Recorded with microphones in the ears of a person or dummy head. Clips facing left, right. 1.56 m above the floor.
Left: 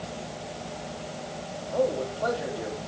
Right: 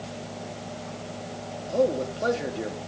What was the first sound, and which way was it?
A man speaking, 35° right (ahead or behind).